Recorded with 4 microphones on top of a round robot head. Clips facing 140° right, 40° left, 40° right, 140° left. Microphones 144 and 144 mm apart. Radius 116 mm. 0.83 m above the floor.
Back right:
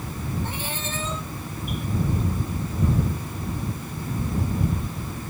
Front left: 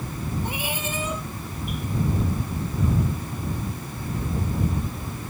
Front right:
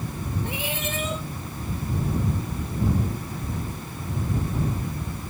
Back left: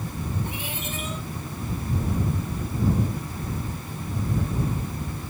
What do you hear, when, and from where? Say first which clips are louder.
0.5 s a cat meowing: front left 2 dB, front right 3 dB; 35° right